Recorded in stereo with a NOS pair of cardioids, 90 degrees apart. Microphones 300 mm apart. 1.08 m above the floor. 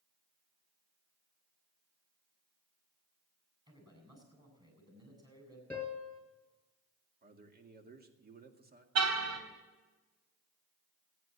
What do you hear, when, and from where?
3.7 s a man speaking: 15° right, 8.5 m
5.7 s a piano: 5° left, 4 m
7.2 s a man speaking: 30° right, 2 m
8.9 s a car horn: 60° right, 3 m